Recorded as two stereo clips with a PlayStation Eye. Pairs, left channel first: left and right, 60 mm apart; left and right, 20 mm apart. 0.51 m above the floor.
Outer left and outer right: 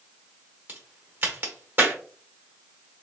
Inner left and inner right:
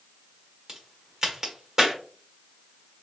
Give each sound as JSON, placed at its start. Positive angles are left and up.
{"t": 0.7, "sound": "a crack", "side_deg": -35, "distance_m": 1.4}